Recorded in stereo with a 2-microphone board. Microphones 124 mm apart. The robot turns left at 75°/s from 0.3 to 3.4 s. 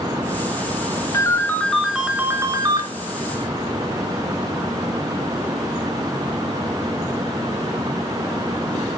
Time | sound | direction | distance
1.1 | a ringtone | 55° left | 0.8 m